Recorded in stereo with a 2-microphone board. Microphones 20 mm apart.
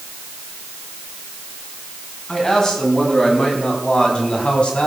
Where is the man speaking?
30° left (ahead or behind), 4.5 m; by 4.9 s 65° left (ahead or behind), 4 m.